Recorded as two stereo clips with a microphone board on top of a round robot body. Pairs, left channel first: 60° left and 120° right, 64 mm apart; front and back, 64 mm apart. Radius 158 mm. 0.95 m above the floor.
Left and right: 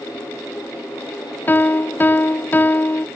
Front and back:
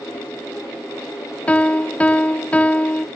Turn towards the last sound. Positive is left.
turn(degrees=50)